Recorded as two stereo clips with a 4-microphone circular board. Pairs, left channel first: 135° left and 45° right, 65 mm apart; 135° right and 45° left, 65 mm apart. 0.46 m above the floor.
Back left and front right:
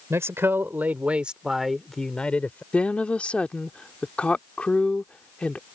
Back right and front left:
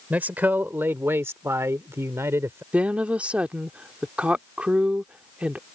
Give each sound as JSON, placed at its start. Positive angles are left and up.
{"t": 0.1, "sound": "a man speaking", "azimuth_deg": -15}
{"t": 2.7, "sound": "a woman speaking", "azimuth_deg": 90}